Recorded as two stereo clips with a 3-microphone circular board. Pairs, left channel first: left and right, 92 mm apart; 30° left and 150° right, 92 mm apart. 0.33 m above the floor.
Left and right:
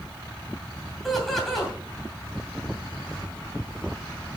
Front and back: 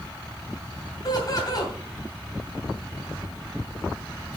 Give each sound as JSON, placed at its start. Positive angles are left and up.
{"t": 1.0, "sound": "laughter", "azimuth_deg": 5, "distance_m": 2.5}